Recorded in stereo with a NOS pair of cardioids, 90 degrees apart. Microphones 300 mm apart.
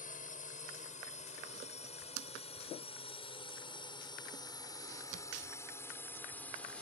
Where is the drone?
25° left; by 6.8 s 5° left.